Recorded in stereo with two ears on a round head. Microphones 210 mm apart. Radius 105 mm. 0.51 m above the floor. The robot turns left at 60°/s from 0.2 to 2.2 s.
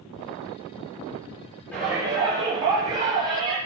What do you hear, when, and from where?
1.7 s a shout: 10° left (ahead or behind), 9.5 m; by 3.6 s 20° right (ahead or behind), 9.5 m